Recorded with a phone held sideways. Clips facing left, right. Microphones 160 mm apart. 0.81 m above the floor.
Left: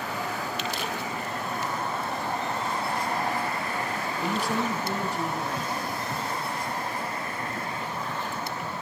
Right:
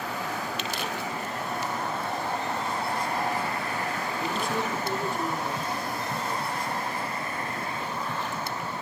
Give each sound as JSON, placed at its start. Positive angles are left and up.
{"t": 4.2, "sound": "a man speaking", "side_deg": 75, "distance_m": 7.0}